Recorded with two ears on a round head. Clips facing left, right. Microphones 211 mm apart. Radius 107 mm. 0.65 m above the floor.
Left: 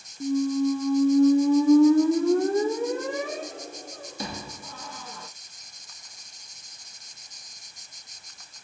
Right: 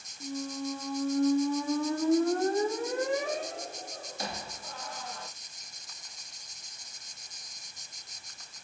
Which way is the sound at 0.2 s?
70° left (ahead or behind).